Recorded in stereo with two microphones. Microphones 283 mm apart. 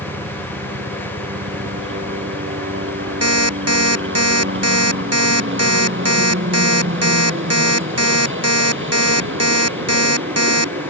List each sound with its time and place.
0.0 s a helicopter: 45° right (ahead or behind)
3.2 s an alarm clock: 60° right (ahead or behind)